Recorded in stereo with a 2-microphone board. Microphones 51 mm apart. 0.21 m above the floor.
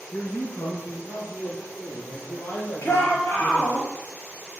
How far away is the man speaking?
About 3 m.